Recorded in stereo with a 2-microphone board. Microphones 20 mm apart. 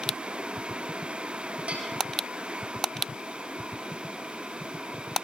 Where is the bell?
80° right, 7 m.